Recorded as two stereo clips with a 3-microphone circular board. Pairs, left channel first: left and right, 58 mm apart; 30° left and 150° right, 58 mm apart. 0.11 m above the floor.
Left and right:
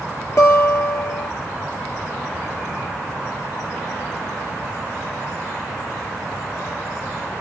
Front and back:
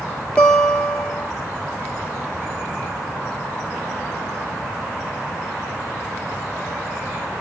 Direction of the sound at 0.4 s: 100° left.